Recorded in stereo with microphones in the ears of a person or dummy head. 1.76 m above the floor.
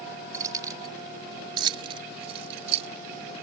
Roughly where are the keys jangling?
Centre.